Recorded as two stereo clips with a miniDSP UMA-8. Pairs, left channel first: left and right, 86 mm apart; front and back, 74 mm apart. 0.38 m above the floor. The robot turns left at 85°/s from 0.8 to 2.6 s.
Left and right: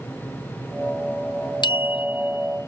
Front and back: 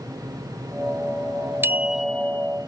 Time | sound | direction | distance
1.6 | a bicycle bell | 120° left | ?